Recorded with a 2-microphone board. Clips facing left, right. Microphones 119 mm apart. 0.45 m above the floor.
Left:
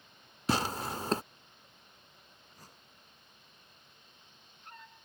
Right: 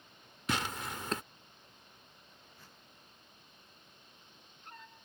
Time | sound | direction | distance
0.5 | tearing paper | 35° left (ahead or behind) | ?
2.5 | a whoosh | 40° left (ahead or behind) | ?